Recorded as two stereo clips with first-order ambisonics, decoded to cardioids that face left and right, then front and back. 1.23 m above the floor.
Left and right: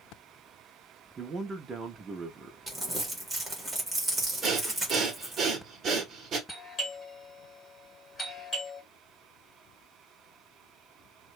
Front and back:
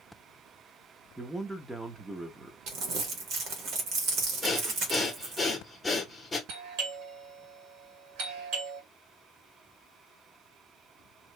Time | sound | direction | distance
1.2 | a man speaking | 110° right | 0.6 m
2.7 | crumpling | 170° right | 1.1 m
4.4 | breathing | 70° right | 1.0 m
6.5 | a doorbell | 160° left | 1.6 m